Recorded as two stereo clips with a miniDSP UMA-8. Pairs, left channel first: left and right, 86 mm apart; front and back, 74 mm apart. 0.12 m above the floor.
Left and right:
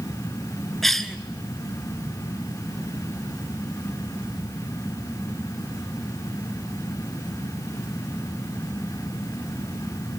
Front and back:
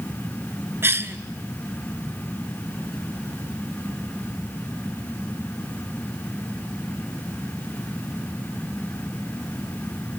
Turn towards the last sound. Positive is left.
turn(degrees=175)